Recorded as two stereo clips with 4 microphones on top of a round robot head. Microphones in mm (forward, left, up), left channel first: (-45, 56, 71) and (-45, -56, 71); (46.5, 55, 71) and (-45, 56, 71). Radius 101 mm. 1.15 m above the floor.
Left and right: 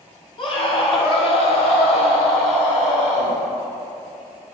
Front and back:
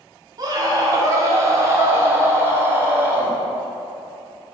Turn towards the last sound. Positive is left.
turn(degrees=110)